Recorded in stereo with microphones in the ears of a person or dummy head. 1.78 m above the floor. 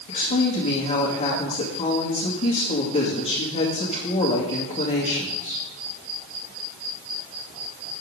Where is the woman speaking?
45° left (ahead or behind), 2 m.